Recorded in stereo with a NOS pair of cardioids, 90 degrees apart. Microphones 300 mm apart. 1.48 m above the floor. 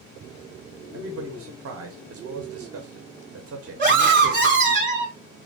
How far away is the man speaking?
About 1.4 m.